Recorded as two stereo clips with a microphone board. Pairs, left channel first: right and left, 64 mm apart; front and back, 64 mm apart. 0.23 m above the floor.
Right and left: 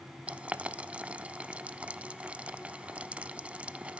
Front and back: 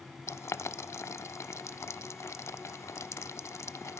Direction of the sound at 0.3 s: 25° left.